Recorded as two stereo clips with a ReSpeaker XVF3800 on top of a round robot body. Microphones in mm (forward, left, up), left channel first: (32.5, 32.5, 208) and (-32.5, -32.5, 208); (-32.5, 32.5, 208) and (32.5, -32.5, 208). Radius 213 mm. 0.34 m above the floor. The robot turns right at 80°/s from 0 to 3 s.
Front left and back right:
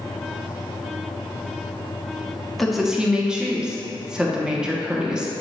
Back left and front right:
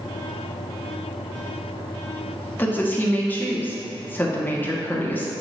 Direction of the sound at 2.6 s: 125° left.